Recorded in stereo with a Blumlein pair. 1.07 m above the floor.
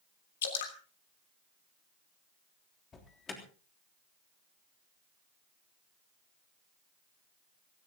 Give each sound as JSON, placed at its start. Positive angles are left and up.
{"t": 0.4, "sound": "dripping", "azimuth_deg": 60, "distance_m": 3.0}
{"t": 2.9, "sound": "an alarm", "azimuth_deg": 20, "distance_m": 3.5}